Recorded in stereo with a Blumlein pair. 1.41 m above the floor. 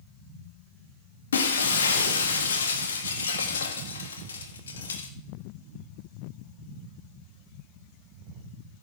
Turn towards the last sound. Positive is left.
turn(degrees=70)